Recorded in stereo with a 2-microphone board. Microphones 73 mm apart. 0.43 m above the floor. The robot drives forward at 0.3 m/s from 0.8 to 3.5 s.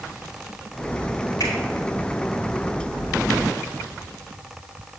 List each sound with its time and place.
1.4 s a finger snap: 55° left (ahead or behind), 6.5 m